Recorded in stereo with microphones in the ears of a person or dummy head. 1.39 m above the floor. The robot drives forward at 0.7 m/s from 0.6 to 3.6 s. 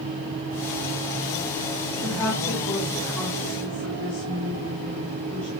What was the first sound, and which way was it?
A woman speaking, 15° left (ahead or behind).